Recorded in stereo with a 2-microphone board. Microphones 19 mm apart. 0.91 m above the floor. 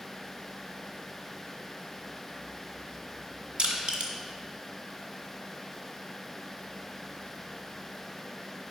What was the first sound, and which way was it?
Crushing, 70° right (ahead or behind).